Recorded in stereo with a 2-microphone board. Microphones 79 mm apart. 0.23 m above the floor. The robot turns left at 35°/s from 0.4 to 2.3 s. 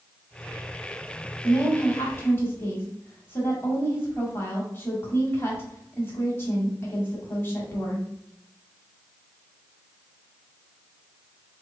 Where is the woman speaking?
25° left (ahead or behind), 1.2 m; by 8.1 s 30° left (ahead or behind), 1.2 m.